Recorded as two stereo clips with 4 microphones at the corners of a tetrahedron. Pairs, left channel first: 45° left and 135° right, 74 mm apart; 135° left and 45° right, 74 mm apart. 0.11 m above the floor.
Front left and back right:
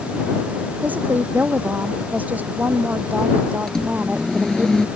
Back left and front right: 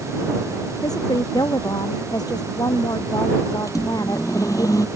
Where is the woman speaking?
160° left.